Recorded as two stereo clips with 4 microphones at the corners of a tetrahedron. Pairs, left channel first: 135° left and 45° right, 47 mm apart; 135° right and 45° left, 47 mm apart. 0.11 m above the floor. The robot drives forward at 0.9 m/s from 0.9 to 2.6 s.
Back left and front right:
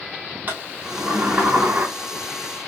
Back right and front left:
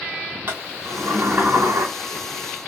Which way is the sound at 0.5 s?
10° left.